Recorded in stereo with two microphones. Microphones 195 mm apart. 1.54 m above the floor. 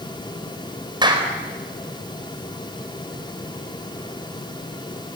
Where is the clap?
20° right (ahead or behind), 4.5 m.